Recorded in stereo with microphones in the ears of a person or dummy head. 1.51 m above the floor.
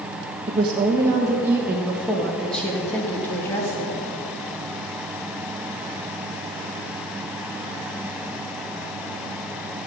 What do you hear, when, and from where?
0.5 s a woman speaking: 25° right (ahead or behind), 1.6 m; by 4.0 s 20° left (ahead or behind), 3 m